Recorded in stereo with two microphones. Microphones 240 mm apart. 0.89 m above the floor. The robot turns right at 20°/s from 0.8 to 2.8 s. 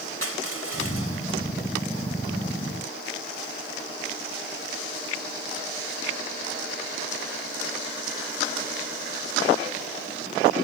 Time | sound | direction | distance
0.2 | crushing | 75° right (ahead or behind) | ?